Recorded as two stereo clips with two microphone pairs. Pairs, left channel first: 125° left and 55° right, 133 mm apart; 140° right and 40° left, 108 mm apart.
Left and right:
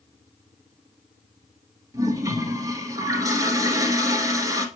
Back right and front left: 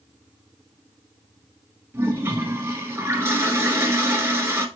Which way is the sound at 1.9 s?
10° right.